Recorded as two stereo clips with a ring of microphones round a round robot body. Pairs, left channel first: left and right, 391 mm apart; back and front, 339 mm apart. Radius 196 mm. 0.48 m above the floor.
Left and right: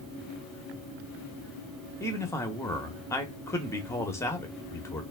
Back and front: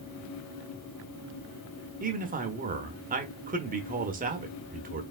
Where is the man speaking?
15° left, 0.7 m.